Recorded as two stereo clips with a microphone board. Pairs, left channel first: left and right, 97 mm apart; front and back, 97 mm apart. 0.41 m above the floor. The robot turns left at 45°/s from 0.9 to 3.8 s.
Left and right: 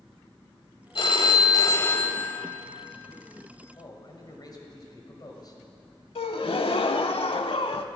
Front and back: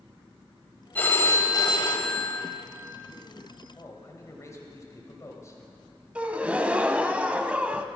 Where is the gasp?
105° left, 0.5 m.